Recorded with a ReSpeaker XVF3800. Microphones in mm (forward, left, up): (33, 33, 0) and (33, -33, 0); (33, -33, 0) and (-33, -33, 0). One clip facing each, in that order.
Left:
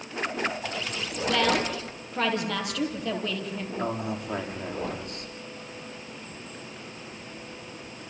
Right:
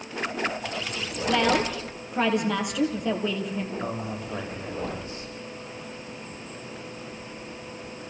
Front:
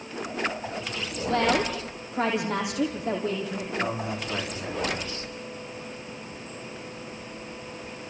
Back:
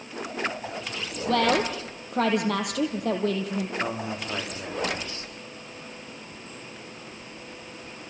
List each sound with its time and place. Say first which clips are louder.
1.3 s a woman speaking: right 2 dB, back 1 dB; 165° right, 4 m
3.8 s a man speaking: left 1 dB, front 1 dB; 120° left, 6 m